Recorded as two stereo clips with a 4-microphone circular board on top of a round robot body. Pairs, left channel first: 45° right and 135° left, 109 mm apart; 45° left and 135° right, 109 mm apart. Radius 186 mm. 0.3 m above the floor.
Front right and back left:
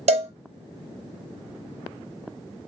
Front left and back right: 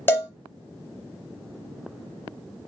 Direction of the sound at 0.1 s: 115° left.